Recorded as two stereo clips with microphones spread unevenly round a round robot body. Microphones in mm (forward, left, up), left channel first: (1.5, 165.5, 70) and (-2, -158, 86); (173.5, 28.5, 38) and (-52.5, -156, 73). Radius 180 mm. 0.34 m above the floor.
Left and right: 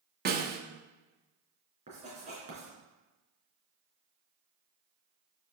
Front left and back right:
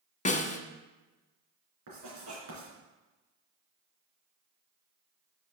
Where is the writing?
160° right, 3.5 m.